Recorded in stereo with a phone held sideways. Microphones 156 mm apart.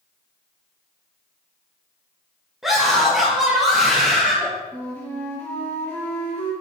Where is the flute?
15° left (ahead or behind), 1.9 m.